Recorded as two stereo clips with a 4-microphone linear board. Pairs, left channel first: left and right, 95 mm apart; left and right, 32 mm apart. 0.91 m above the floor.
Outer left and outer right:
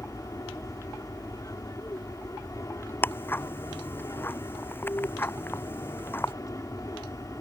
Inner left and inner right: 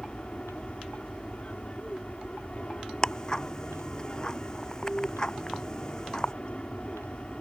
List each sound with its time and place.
0.0 s an aircraft: 35° left (ahead or behind)
3.0 s ticking: 25° left (ahead or behind)